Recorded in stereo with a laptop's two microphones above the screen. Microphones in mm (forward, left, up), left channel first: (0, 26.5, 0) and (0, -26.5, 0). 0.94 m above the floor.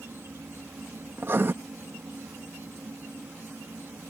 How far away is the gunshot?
I don't hear a gunshot.